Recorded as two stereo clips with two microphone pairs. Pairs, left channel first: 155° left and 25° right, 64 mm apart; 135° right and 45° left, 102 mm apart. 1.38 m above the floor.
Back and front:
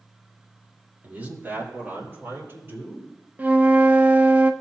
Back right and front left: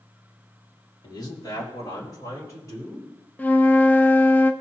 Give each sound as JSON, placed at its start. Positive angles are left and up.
{"t": 1.0, "sound": "a man speaking", "azimuth_deg": -90, "distance_m": 2.0}
{"t": 3.4, "sound": "a flute", "azimuth_deg": -70, "distance_m": 0.6}